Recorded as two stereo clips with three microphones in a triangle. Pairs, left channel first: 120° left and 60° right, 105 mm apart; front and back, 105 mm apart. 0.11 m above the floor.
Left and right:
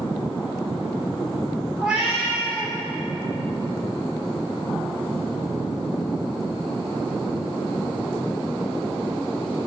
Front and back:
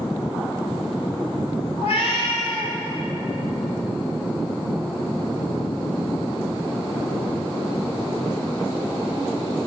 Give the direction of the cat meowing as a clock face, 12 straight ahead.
11 o'clock.